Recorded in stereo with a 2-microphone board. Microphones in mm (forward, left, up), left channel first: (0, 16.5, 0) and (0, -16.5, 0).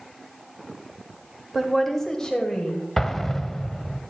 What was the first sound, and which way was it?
A woman speaking, centre (ahead or behind).